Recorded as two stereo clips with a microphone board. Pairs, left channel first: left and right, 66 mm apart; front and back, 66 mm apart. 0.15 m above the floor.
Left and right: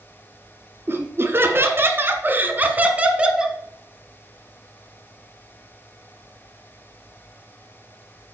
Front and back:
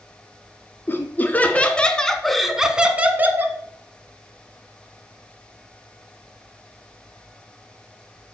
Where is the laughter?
50° right, 1.8 m; by 3.6 s 160° right, 1.4 m.